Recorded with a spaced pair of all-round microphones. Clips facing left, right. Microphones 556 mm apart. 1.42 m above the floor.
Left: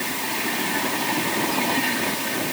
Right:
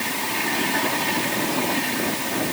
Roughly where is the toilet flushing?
I don't hear a toilet flushing.